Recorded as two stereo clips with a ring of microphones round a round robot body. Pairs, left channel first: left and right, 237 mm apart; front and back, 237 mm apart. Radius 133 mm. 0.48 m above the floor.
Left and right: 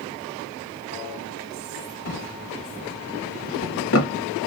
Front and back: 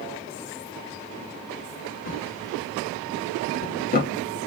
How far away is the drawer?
About 1.0 m.